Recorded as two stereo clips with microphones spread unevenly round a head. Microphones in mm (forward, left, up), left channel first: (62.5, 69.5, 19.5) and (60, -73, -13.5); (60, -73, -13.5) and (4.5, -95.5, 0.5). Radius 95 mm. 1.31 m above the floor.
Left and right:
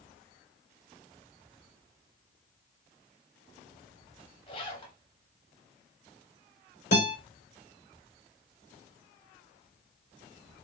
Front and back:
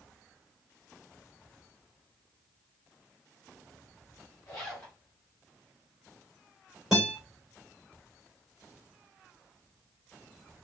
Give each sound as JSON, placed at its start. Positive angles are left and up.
{"t": 4.5, "sound": "a zipper", "azimuth_deg": 85, "distance_m": 1.4}
{"t": 6.9, "sound": "a guitar", "azimuth_deg": 120, "distance_m": 2.5}